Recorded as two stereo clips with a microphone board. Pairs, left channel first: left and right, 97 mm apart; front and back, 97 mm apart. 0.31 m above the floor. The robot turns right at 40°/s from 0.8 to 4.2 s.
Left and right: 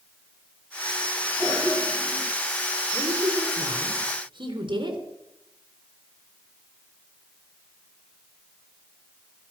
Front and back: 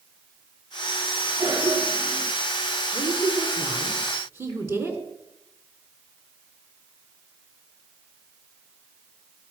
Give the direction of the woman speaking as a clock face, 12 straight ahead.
6 o'clock.